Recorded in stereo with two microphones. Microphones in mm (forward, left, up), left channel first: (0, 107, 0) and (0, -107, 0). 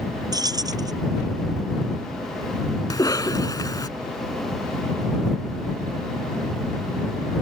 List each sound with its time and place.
0.3 s keys jangling: 20° right (ahead or behind)
2.9 s a cough: 15° left (ahead or behind)